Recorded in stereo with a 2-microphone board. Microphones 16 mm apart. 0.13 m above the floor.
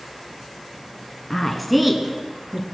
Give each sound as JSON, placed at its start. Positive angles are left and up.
{"t": 1.3, "sound": "a woman speaking", "side_deg": 20, "distance_m": 1.6}